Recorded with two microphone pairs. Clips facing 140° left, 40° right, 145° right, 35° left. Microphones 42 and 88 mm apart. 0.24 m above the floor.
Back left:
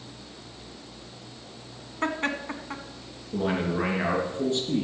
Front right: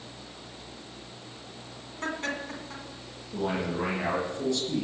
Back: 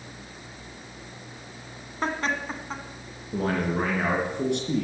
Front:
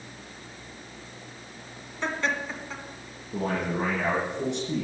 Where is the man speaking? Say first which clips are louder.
Back left 3 dB, back 2 dB; 165° right, 3.5 m.